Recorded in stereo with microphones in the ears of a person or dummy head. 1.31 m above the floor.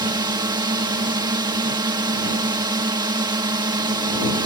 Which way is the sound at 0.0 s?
25° right (ahead or behind).